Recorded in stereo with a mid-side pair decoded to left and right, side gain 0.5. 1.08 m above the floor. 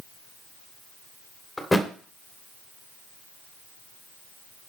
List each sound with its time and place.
1.6 s a thud: 10° left, 2 m